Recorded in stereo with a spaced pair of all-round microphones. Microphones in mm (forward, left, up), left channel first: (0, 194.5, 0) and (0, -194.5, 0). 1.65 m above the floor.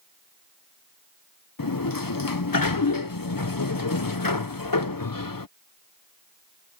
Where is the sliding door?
60° left (ahead or behind).